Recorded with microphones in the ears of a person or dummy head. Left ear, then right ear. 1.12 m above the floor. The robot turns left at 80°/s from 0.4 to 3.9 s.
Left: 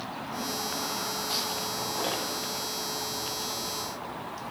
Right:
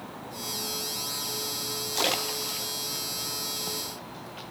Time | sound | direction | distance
1.9 | a splash | 60° right (ahead or behind) | 0.8 m